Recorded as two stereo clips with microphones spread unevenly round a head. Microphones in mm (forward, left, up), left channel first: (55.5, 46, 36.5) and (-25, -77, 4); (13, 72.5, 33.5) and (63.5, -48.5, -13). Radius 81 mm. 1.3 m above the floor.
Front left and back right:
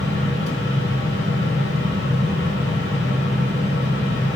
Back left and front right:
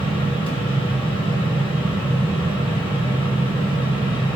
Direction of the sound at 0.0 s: 65° left.